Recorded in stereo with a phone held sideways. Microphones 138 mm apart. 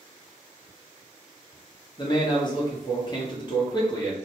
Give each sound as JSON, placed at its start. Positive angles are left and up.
{"t": 2.0, "sound": "a man speaking", "side_deg": 30, "distance_m": 1.0}